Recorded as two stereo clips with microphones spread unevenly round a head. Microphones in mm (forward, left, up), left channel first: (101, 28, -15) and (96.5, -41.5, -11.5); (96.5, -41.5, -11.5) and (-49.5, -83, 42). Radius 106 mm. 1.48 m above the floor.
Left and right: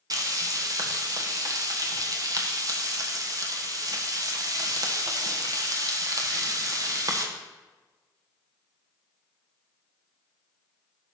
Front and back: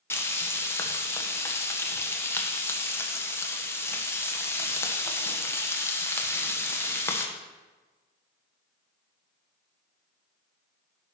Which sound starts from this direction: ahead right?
Frying, at 0.1 s.